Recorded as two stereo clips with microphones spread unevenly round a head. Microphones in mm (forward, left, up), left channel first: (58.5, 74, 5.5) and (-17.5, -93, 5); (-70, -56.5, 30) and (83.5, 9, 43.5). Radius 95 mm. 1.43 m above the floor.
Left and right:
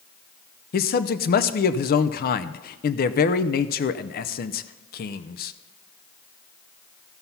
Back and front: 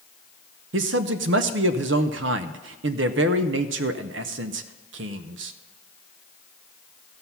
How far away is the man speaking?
About 0.6 m.